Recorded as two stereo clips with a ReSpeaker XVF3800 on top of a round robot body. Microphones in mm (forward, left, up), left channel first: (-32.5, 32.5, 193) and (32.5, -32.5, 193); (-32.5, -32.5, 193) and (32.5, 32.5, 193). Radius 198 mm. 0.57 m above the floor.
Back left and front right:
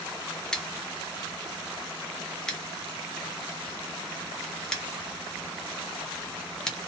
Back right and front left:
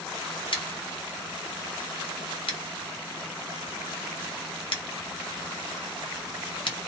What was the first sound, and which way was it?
Scissors, 140° right.